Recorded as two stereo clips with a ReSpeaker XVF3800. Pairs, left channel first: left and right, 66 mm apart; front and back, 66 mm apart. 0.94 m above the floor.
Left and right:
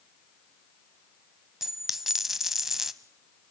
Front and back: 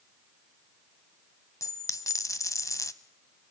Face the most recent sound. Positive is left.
turn(degrees=-10)